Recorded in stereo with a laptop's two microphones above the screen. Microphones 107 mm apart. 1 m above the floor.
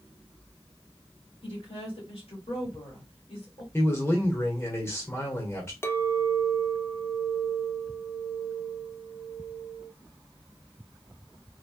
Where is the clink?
25° left (ahead or behind), 0.5 m.